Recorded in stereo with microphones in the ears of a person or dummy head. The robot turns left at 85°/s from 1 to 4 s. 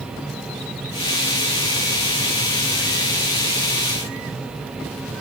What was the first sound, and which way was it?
Only background noise.